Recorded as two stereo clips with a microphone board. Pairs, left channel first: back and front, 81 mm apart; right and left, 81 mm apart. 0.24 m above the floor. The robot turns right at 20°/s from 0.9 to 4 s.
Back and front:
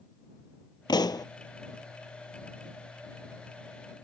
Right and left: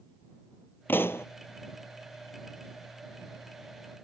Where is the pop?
155° right; by 1.2 s 145° right.